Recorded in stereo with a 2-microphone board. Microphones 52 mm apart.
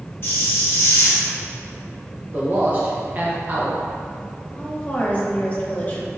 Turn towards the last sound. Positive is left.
turn(degrees=35)  # may be behind; listen again after turning